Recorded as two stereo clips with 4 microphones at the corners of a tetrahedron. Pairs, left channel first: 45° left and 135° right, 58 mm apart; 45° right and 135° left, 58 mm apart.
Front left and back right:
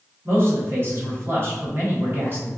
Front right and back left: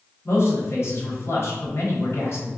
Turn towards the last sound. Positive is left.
turn(degrees=-85)